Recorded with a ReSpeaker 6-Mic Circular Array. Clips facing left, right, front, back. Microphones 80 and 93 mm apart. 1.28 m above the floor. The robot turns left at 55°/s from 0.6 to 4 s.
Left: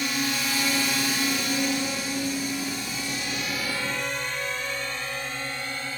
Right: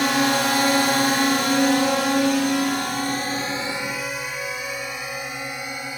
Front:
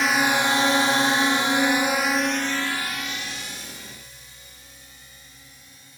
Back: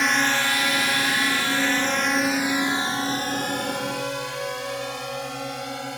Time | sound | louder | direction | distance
0.0 | a drone | right 9 dB, front 1 dB | 90° right | ?